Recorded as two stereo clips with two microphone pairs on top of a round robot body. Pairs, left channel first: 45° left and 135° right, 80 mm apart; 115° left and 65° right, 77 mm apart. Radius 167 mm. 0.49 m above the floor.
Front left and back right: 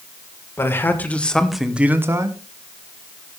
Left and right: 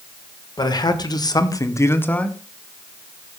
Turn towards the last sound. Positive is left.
turn(degrees=-170)